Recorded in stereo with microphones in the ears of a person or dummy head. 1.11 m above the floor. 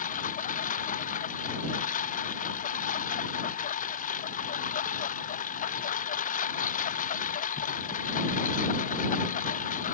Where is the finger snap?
No finger snap in this recording.